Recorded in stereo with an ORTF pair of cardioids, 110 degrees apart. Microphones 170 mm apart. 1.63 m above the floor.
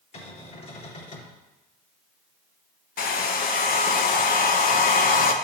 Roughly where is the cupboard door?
Ahead left.